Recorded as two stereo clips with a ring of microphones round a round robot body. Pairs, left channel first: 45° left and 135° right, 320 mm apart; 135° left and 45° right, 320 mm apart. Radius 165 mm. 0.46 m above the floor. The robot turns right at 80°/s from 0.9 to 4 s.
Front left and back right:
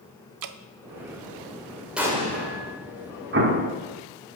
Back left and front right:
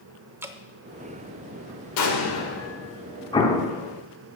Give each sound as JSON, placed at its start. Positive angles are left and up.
{"t": 0.4, "sound": "dripping", "azimuth_deg": -125, "distance_m": 0.6}
{"t": 2.0, "sound": "an explosion", "azimuth_deg": 140, "distance_m": 1.9}
{"t": 3.3, "sound": "an explosion", "azimuth_deg": -160, "distance_m": 1.5}